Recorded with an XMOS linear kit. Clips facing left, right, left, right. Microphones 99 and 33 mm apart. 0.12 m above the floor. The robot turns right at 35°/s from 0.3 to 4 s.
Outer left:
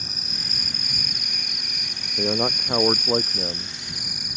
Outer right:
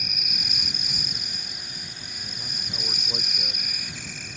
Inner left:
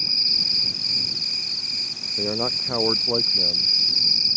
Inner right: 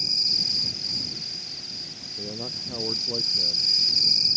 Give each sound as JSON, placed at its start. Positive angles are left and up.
{"t": 0.0, "sound": "an insect", "azimuth_deg": 35}
{"t": 2.2, "sound": "a man speaking", "azimuth_deg": 95}